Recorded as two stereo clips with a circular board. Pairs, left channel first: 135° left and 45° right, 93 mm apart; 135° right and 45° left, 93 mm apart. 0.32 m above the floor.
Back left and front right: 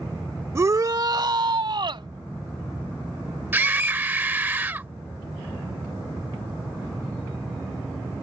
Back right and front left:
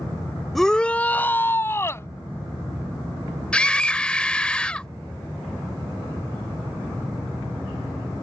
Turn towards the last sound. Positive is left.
turn(degrees=-75)